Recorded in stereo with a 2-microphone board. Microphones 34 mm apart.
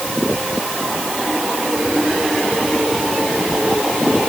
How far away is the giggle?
I don't hear a giggle.